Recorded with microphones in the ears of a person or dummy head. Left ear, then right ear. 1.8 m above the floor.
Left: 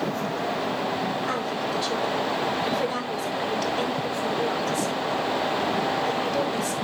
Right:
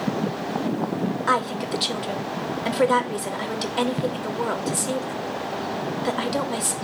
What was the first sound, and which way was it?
A woman speaking, 65° right (ahead or behind).